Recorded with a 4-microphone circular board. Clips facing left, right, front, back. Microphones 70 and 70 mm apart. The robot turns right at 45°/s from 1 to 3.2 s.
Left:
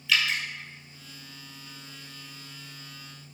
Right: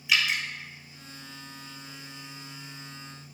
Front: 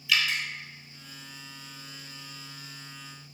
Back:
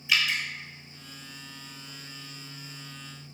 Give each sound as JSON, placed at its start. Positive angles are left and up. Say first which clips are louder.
{"t": 0.1, "sound": "dripping", "louder": "even, even", "azimuth_deg": -145, "distance_m": 0.5}